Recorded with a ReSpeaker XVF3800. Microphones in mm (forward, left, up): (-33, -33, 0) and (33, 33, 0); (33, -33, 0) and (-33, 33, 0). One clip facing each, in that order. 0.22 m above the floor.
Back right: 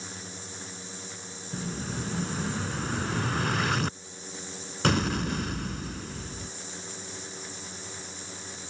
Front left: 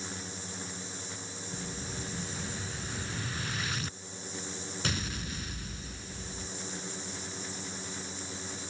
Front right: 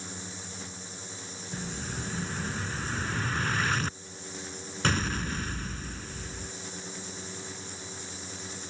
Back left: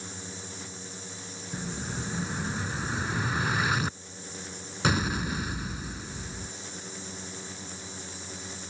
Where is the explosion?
145° right.